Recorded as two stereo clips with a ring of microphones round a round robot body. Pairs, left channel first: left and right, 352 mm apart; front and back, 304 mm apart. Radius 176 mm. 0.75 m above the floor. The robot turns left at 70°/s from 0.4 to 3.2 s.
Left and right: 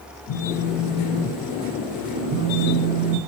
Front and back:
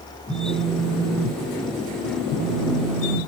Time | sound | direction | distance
0.3 | a phone buzzing | 75° left | 0.8 m